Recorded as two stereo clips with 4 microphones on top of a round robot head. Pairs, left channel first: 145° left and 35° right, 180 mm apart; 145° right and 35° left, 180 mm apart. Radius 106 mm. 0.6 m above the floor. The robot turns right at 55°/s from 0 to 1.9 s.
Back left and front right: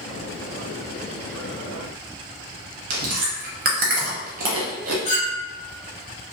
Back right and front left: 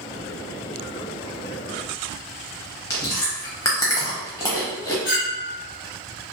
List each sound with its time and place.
2.9 s chewing: 75° right, 0.6 m
5.0 s a clink: 165° right, 1.6 m